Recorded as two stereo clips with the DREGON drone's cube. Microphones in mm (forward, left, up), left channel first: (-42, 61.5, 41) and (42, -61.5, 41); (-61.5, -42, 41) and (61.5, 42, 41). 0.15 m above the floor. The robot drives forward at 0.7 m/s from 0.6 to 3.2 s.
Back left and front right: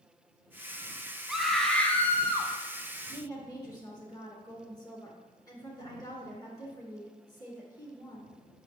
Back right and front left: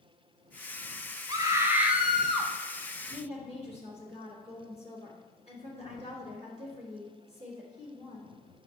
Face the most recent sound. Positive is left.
turn(degrees=180)